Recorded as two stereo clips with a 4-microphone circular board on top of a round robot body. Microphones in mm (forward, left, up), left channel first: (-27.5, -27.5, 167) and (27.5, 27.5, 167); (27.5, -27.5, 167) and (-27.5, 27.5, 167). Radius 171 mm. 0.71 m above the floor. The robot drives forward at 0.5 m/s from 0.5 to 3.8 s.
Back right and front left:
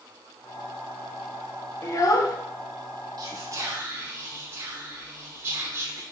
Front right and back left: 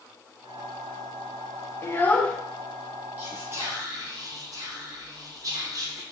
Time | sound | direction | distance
1.8 | a child speaking | 90° right | 0.7 m
3.2 | whispering | 70° left | 0.7 m